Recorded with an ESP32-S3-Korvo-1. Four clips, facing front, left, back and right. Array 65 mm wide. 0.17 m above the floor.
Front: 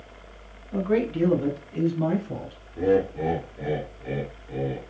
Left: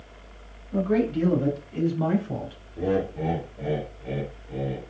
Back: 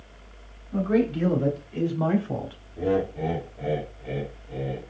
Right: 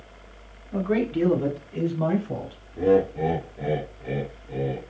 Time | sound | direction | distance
0.7 | a man speaking | 45° right | 1.2 m
2.8 | laughter | 30° right | 1.9 m